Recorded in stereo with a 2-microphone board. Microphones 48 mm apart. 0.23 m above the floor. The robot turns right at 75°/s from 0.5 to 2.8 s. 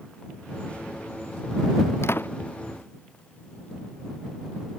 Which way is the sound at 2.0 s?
65° left (ahead or behind).